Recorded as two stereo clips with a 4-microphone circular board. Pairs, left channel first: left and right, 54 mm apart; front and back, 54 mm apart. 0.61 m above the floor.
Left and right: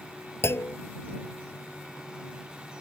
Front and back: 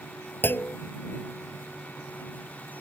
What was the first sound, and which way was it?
A clunk, 50° left.